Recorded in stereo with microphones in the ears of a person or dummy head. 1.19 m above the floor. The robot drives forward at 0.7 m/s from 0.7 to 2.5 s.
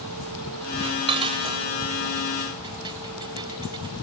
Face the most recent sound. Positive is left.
turn(degrees=-20)  # may be behind; listen again after turning